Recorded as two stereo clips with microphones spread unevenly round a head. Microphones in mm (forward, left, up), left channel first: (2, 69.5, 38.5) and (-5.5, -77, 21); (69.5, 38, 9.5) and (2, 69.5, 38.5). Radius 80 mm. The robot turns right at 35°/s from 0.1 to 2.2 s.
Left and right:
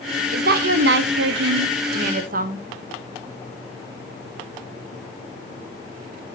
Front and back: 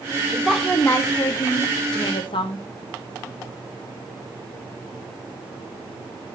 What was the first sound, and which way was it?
A woman speaking, 125° right.